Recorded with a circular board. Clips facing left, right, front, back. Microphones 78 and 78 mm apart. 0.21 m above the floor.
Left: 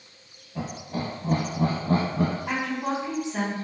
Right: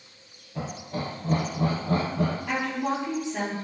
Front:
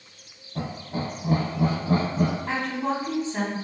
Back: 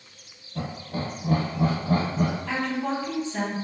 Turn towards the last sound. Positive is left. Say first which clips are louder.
# even, even
turn(degrees=50)